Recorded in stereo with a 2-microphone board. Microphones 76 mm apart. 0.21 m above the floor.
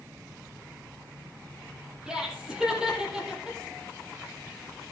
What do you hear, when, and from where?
2.1 s laughter: 10° right (ahead or behind), 7.5 m